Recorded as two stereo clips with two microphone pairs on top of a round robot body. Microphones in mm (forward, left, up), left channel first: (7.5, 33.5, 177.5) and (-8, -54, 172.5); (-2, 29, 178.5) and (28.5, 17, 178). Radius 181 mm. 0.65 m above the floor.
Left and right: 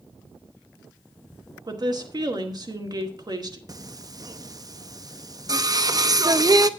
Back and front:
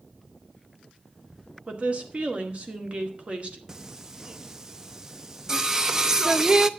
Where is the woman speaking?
70° right, 2 m.